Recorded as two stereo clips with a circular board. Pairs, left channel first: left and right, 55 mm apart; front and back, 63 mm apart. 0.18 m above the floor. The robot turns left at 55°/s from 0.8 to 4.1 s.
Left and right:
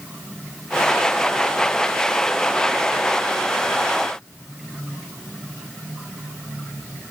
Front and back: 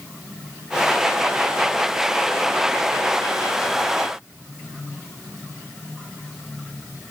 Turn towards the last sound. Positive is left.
No sound to turn to.